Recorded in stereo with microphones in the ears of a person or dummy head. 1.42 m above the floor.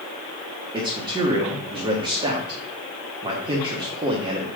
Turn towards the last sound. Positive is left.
turn(degrees=-15)  # may be behind; listen again after turning